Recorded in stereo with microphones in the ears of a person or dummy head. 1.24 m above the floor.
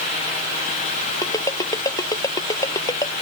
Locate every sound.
1.2 s a ringtone: 20° left (ahead or behind)